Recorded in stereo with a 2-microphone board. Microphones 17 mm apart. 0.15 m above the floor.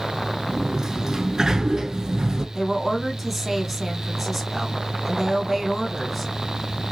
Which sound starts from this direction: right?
A sliding door, at 0.5 s.